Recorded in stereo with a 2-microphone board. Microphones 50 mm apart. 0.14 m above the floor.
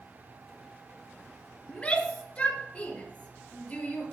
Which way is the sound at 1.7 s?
25° left (ahead or behind).